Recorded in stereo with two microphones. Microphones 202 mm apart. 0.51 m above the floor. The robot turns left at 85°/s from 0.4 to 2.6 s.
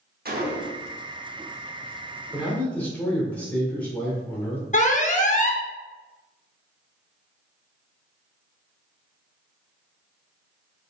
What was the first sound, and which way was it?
A gunshot, 55° right.